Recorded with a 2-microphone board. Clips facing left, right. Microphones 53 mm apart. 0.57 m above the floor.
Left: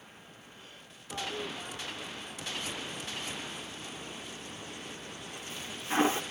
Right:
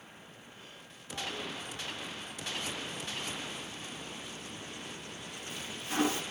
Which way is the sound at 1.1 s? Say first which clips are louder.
Left 2 dB; 30° left (ahead or behind).